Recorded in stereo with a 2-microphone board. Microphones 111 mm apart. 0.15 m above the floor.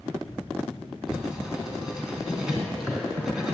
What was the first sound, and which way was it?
Writing, 5° right (ahead or behind).